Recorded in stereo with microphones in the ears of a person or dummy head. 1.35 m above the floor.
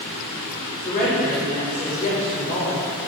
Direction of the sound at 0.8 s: 30° left (ahead or behind).